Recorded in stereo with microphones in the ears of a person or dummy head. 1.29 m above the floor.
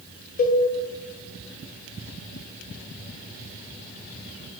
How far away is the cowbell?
About 0.6 m.